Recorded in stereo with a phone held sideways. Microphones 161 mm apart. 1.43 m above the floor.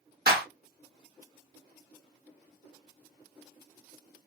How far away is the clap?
About 1.8 m.